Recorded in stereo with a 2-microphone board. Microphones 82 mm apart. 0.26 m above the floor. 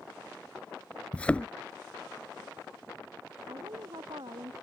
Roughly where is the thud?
Centre.